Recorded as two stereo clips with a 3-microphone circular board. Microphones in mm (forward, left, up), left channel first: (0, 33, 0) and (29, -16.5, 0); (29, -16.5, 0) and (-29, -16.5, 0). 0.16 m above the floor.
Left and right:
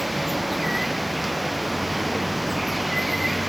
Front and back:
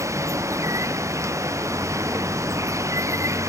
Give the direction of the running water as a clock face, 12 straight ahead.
5 o'clock.